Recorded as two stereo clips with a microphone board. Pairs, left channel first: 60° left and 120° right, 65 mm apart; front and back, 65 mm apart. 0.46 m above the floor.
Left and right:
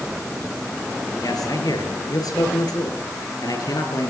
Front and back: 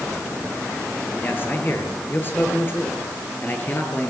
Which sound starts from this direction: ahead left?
A man speaking, at 1.2 s.